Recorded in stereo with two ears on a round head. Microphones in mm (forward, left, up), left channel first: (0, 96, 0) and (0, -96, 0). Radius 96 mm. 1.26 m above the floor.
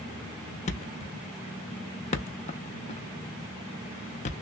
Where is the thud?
35° left (ahead or behind), 0.7 m.